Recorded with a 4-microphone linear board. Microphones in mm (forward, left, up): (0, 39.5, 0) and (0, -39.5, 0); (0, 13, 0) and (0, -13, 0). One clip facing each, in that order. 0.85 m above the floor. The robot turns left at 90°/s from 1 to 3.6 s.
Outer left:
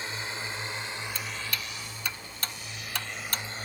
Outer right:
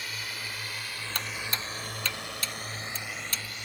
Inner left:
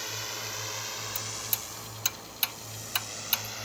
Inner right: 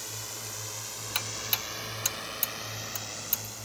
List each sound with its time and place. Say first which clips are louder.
0.0 s a drone: outer left 3 dB, inner left 4 dB; 30° left (ahead or behind); by 3.6 s 35° left (ahead or behind)
1.1 s ticking: outer right 1 dB, inner right 4 dB; 65° right (ahead or behind); by 3.5 s 40° left (ahead or behind)